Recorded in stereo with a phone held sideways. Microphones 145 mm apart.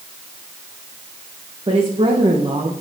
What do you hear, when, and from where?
1.7 s a woman speaking: 40° right (ahead or behind), 1.9 m